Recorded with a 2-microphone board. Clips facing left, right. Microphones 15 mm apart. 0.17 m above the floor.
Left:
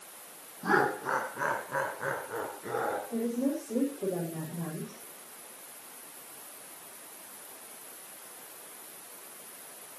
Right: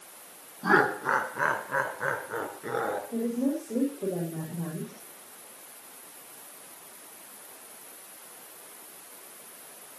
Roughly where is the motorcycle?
I don't hear a motorcycle.